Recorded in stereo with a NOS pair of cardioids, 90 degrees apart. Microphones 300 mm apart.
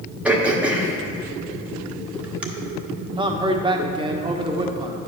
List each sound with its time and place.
0.2 s throat clearing: 5° right, 1.3 m
3.2 s a man speaking: 15° right, 1.3 m